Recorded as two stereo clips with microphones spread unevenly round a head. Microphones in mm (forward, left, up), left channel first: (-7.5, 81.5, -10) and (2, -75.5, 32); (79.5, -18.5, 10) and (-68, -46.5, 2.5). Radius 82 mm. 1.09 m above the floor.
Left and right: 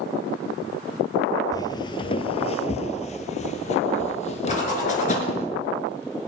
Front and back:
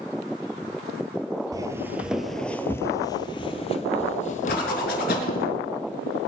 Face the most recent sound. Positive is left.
turn(degrees=45)